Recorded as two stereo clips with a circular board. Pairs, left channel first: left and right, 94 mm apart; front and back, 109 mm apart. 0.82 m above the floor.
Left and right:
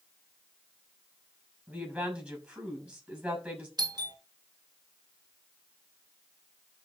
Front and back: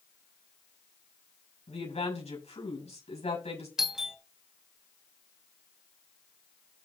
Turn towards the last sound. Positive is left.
turn(degrees=-95)